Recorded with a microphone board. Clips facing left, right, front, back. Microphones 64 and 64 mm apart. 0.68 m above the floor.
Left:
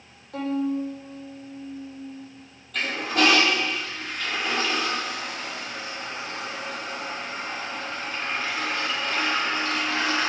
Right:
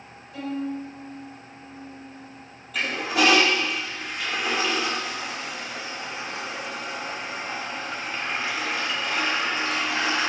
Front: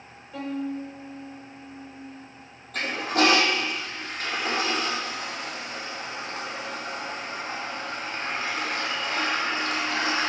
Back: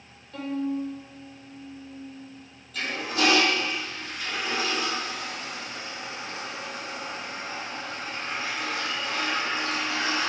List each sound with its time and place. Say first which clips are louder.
0.3 s a violin: left 4 dB, back 2 dB; 75° left, 2.5 m
2.7 s a toilet flushing: even, front 4 dB; 5° right, 1.8 m